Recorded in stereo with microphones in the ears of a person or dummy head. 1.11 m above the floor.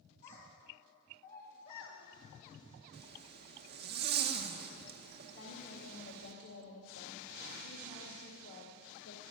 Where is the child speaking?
45° left (ahead or behind), 4 m; by 2.0 s 55° left (ahead or behind), 2.5 m.